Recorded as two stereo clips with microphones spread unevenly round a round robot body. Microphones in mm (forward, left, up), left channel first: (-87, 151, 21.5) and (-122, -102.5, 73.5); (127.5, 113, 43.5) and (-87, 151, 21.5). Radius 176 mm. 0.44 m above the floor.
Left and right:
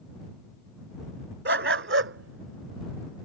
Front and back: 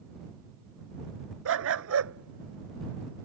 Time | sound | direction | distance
1.4 | a dog barking | 140° right | ?